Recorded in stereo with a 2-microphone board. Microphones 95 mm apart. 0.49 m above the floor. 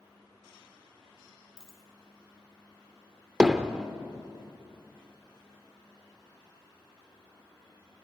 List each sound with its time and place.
1.6 s a dropped coin: 10° left (ahead or behind), 3 m
3.4 s hammering: 10° right (ahead or behind), 0.9 m